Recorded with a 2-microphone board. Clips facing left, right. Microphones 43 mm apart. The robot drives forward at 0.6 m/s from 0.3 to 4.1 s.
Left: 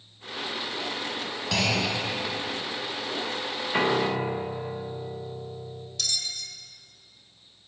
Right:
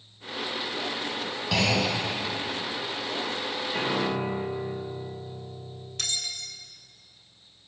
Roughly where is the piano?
Left.